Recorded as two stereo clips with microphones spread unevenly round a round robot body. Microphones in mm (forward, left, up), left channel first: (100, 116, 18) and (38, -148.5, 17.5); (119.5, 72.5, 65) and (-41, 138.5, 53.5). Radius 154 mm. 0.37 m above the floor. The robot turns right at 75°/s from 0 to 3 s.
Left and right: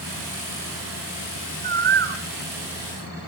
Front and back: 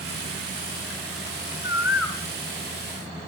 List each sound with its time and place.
1.6 s a bird: 155° right, 1.2 m; by 2.2 s 110° right, 1.2 m